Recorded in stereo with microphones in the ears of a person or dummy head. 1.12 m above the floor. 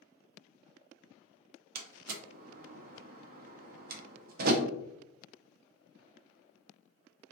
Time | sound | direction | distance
1.8 | a door slam | 55° right (ahead or behind) | 0.5 m